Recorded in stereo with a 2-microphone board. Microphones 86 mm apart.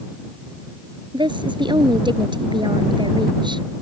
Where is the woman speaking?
65° right (ahead or behind).